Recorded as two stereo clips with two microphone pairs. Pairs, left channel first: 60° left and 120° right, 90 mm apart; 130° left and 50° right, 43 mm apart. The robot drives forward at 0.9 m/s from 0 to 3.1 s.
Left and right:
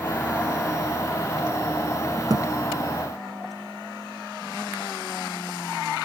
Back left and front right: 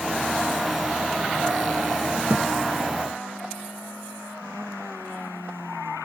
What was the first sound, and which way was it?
A thud, 85° right.